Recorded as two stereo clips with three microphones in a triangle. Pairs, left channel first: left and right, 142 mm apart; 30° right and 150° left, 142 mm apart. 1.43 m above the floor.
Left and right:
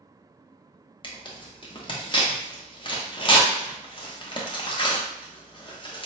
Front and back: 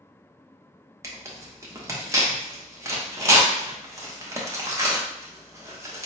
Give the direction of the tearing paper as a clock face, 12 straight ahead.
9 o'clock.